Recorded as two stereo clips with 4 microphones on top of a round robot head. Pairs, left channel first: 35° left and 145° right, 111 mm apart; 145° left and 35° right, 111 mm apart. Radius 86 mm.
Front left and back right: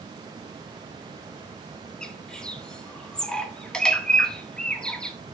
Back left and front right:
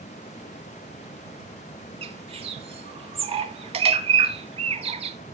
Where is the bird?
45° right, 1.6 m.